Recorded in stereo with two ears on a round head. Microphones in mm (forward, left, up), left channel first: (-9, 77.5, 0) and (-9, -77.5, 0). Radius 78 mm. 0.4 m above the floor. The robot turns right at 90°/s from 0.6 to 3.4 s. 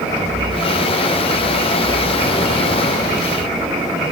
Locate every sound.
Only background noise.